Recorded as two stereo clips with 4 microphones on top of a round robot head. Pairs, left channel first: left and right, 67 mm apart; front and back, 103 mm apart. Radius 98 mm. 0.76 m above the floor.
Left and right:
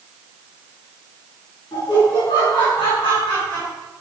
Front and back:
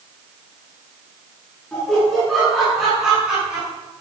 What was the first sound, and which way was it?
Laughter, 85° left.